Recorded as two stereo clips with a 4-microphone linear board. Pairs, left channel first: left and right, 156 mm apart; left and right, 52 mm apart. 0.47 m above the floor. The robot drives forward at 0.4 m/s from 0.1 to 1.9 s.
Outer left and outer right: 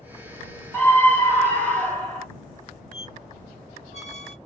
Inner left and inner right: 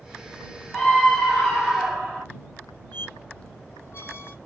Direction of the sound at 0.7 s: 15° left (ahead or behind).